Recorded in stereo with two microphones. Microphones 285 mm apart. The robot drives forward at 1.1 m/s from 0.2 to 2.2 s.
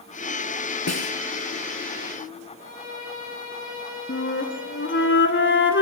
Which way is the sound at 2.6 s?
25° left (ahead or behind).